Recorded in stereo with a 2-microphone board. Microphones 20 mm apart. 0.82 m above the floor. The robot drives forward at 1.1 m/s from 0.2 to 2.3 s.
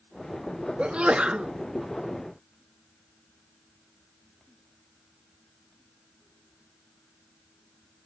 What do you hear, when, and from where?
0.8 s a sneeze: 65° right (ahead or behind), 0.9 m; by 1.5 s 50° right (ahead or behind), 1.1 m